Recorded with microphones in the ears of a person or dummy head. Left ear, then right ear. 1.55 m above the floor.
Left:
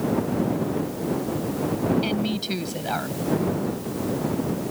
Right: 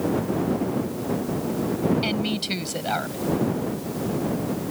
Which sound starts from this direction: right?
A woman speaking, at 2.0 s.